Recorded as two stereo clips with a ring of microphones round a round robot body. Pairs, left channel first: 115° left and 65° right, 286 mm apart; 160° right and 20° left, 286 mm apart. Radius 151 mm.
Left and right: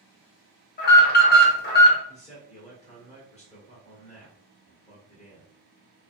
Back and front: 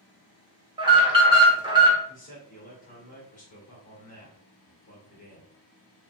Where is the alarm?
85° left, 1.1 m.